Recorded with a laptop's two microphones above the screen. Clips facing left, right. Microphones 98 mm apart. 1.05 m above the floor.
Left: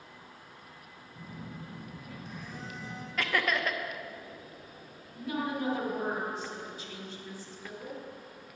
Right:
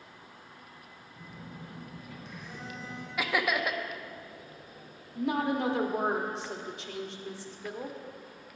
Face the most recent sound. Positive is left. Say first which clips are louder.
# right 5 dB
turn(degrees=-75)  # may be behind; listen again after turning